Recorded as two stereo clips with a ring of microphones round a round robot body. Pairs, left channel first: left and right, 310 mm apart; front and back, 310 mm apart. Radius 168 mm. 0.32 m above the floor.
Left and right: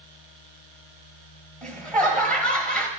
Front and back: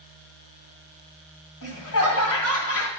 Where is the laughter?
5° left, 2 m.